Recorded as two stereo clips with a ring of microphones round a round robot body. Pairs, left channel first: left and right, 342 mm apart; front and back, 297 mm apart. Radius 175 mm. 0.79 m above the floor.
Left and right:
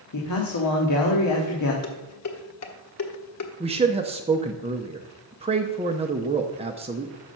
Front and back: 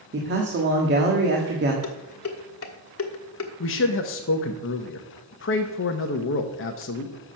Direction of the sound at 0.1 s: 130° left.